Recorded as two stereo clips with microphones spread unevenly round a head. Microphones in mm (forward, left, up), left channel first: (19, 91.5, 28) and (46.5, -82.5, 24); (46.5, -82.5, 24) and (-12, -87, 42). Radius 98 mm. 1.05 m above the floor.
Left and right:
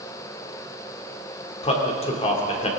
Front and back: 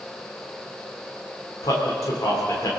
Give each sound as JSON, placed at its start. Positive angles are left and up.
{"t": 1.6, "sound": "a man speaking", "azimuth_deg": 45, "distance_m": 2.5}